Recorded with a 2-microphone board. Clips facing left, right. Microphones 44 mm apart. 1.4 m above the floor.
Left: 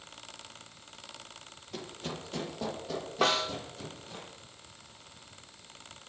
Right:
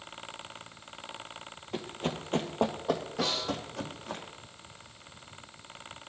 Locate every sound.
1.7 s running footsteps: 30° right (ahead or behind), 1.8 m; by 4.2 s 70° right (ahead or behind), 4 m
3.2 s a snare drum: 55° left (ahead or behind), 1.6 m